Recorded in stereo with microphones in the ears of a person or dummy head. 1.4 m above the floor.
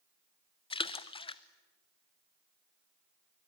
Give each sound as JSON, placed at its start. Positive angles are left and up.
{"t": 0.7, "sound": "a splash", "side_deg": 30, "distance_m": 0.9}